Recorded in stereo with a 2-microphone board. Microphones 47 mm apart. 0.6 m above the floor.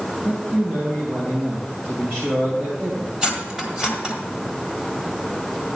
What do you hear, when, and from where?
0.2 s a man speaking: 45° right (ahead or behind), 2.5 m
3.2 s cutlery clinking: 20° right (ahead or behind), 1.7 m